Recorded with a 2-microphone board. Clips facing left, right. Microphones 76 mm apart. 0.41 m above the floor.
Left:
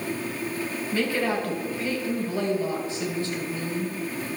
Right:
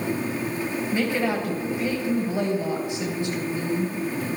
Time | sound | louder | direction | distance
0.9 | a woman speaking | even | 20° right (ahead or behind) | 2.5 m